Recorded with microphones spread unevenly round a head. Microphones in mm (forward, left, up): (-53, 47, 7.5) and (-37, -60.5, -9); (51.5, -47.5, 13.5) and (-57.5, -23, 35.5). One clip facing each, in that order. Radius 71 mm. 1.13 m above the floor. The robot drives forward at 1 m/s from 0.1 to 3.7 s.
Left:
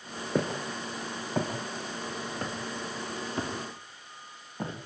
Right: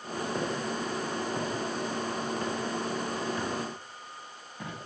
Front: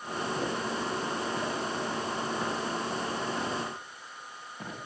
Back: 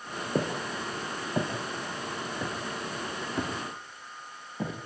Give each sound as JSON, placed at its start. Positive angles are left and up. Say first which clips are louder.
{"t": 0.3, "sound": "footsteps", "louder": "left 4 dB, back 5 dB", "azimuth_deg": 115, "distance_m": 6.5}